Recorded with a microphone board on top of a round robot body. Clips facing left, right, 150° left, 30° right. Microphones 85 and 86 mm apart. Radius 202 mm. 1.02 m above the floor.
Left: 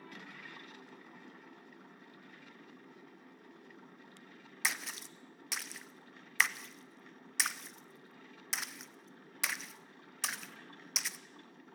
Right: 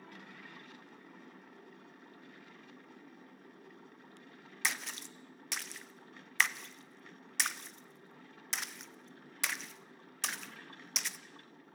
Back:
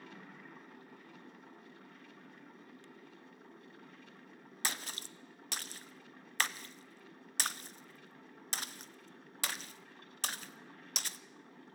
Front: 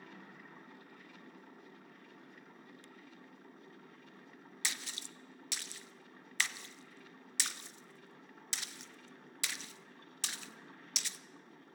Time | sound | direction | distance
4.6 | a splash | 175° left | 1.1 m